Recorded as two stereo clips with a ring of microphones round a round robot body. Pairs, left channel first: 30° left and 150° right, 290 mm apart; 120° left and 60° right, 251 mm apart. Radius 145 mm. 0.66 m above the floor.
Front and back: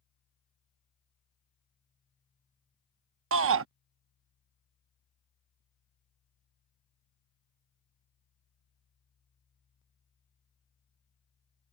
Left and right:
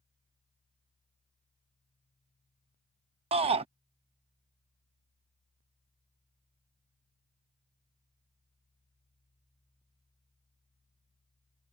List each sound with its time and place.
3.3 s a shout: 125° right